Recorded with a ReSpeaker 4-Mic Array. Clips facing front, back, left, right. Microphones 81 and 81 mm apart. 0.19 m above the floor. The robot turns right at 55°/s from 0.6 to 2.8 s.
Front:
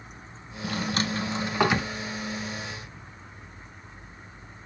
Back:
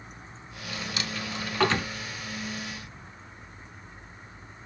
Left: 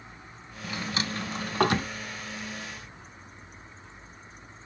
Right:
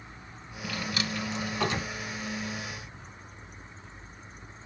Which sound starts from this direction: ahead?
A drawer, at 0.6 s.